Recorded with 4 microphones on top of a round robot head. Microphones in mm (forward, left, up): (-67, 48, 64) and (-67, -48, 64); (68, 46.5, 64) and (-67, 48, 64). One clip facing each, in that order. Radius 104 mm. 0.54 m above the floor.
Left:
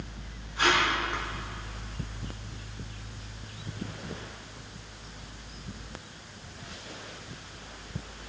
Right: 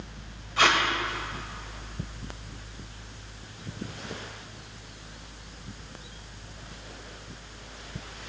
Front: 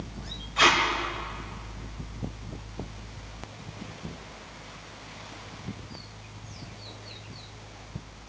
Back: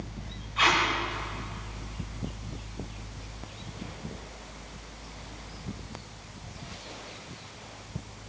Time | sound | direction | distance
0.6 | tape being pulled | 55° right | 2 m